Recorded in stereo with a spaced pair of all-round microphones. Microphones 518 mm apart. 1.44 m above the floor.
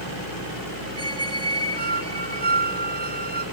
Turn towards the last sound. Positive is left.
turn(degrees=-50)  # may be behind; listen again after turning